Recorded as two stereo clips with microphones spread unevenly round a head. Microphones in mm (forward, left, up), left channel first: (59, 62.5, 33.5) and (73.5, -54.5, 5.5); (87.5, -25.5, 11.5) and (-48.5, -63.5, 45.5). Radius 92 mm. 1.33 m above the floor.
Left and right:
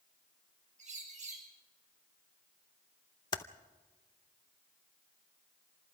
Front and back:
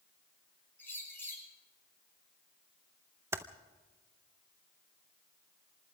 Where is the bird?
60° right, 7 m.